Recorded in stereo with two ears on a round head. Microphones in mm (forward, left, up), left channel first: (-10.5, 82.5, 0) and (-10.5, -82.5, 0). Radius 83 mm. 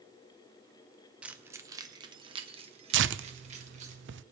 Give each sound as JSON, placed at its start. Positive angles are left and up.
{"t": 1.2, "sound": "keys jangling", "side_deg": -5, "distance_m": 0.8}
{"t": 2.9, "sound": "tearing paper", "side_deg": -70, "distance_m": 0.6}